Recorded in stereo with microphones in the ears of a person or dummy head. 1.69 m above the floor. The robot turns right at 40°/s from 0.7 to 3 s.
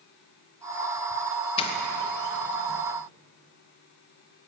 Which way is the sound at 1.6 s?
30° left (ahead or behind).